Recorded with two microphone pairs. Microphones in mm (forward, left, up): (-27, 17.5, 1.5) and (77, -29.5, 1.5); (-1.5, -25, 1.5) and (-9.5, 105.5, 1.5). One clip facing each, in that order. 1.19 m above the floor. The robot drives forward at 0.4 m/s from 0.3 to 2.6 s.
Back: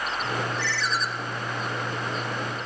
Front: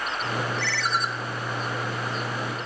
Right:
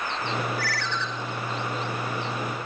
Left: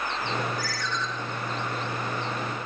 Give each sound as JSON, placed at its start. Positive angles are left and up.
{"t": 0.6, "sound": "a ringtone", "azimuth_deg": -55, "distance_m": 1.5}